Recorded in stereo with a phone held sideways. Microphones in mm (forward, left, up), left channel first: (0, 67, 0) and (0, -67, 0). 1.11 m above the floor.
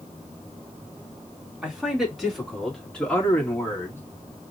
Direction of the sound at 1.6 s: 5° right (ahead or behind).